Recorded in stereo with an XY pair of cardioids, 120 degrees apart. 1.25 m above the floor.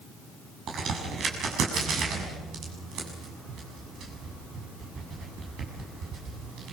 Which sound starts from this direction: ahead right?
A crack, at 0.7 s.